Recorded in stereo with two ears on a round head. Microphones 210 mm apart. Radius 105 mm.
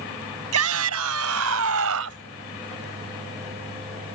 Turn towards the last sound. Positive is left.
turn(degrees=-65)  # may be behind; listen again after turning